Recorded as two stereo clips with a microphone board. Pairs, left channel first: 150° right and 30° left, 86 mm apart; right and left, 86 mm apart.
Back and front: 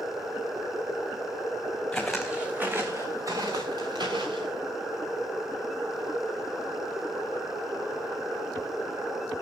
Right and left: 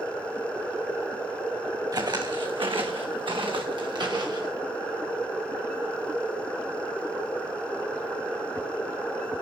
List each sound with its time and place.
1.9 s footsteps: 125° left, 2.0 m; by 4.5 s 55° left, 3.5 m